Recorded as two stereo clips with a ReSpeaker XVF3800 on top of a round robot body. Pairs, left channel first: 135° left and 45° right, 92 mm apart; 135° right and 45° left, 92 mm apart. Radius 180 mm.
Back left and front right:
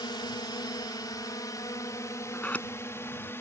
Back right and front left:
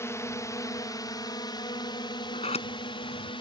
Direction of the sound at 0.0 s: 170° left.